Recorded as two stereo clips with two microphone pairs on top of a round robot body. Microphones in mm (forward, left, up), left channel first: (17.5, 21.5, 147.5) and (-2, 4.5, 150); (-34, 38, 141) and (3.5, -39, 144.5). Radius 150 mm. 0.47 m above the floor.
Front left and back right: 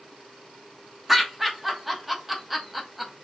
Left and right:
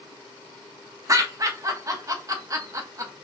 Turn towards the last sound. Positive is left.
turn(degrees=-50)